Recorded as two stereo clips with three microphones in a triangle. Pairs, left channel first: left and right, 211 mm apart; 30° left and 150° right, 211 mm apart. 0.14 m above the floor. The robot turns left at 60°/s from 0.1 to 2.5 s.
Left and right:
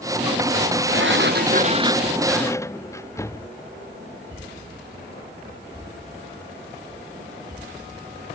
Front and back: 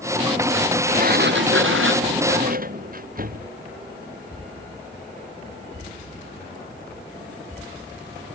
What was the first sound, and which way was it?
A sliding door, 100° right.